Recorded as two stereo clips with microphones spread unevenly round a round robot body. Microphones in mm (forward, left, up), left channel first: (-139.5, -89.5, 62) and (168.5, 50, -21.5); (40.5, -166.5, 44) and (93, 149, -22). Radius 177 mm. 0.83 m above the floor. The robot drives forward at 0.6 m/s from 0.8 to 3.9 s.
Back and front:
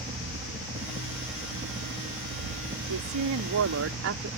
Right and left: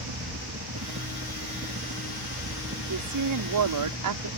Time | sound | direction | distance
0.0 | a helicopter | 85° left | ?
2.9 | a woman speaking | 55° left | ?